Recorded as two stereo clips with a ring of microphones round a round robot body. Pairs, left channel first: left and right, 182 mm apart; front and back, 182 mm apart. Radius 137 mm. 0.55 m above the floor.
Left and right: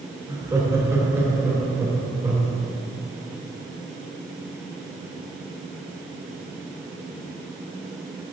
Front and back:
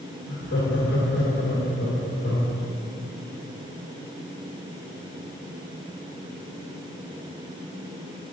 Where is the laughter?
15° right, 3 m.